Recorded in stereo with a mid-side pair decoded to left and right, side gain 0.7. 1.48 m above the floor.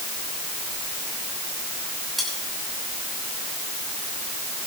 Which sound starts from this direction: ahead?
Cutlery clinking, at 2.2 s.